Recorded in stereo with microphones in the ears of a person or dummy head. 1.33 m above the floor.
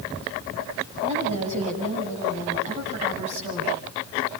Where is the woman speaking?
40° right (ahead or behind), 8.5 m.